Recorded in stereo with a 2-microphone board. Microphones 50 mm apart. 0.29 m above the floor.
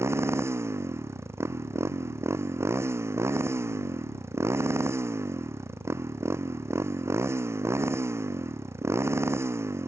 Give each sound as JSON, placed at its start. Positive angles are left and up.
{"t": 0.0, "sound": "a motorcycle", "side_deg": -65}